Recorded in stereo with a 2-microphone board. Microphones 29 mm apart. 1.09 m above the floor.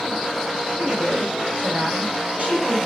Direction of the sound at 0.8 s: 55° right (ahead or behind).